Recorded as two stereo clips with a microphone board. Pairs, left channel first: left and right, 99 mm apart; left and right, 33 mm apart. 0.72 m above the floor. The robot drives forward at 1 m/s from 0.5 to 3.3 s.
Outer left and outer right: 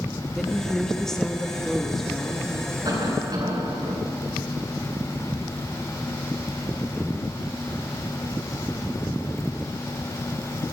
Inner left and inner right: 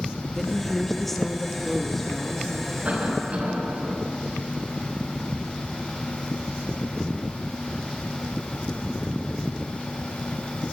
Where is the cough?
40° right (ahead or behind), 4 m; by 4.0 s 35° right (ahead or behind), 4 m.